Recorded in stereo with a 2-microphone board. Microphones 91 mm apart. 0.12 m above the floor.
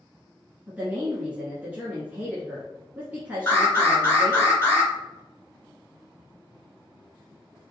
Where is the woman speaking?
20° right (ahead or behind), 1.2 m.